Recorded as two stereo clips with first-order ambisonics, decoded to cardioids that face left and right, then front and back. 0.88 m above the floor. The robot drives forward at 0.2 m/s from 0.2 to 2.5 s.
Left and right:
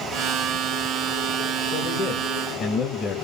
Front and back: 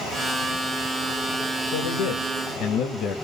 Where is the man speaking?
25° left, 0.7 m; by 3.1 s 35° left, 0.6 m.